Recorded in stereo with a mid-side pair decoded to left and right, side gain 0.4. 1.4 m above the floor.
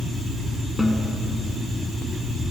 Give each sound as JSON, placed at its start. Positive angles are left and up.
{"t": 0.8, "sound": "a snare drum", "azimuth_deg": 10, "distance_m": 4.0}